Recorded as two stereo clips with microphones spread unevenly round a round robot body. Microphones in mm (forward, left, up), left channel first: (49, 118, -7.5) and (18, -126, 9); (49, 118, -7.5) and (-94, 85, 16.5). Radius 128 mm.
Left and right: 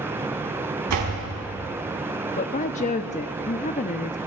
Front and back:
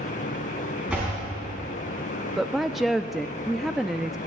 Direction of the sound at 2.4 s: 90° left.